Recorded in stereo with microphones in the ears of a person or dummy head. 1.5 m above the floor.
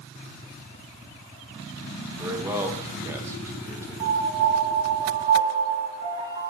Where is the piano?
35° right (ahead or behind), 1.5 m.